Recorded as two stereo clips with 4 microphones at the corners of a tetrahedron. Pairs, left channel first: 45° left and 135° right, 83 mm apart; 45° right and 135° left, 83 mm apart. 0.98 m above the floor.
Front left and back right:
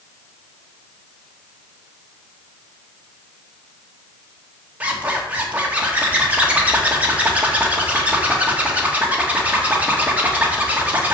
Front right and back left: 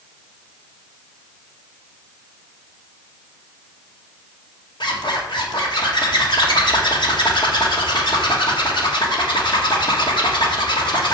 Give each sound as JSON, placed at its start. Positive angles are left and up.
{"t": 4.8, "sound": "a zipper", "azimuth_deg": -65, "distance_m": 1.6}